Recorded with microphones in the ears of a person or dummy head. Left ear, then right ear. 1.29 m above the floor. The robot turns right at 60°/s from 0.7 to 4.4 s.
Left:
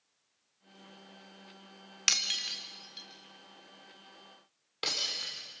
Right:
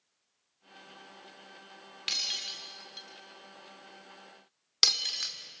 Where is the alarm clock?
No alarm clock in this recording.